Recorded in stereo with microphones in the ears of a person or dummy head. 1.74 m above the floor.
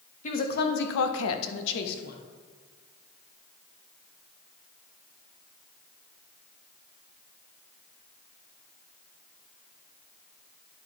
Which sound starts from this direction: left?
A woman speaking, at 0.2 s.